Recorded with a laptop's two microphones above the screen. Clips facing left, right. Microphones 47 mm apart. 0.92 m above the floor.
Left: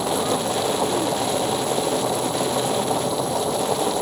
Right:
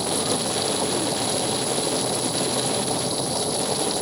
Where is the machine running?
30° left (ahead or behind).